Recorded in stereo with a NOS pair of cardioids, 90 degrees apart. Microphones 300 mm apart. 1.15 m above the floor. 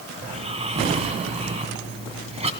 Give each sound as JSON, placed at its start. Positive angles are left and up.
{"t": 0.2, "sound": "snoring", "azimuth_deg": -20, "distance_m": 2.5}